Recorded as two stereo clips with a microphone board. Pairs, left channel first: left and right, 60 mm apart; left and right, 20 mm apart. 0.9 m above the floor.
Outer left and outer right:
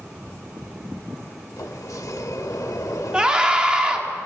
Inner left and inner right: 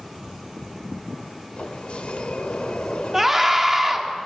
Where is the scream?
15° right (ahead or behind), 2 m.